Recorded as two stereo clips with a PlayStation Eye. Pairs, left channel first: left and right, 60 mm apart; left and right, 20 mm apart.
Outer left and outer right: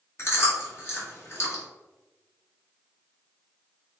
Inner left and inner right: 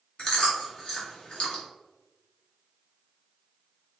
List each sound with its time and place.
0.2 s chewing: 45° left (ahead or behind), 2 m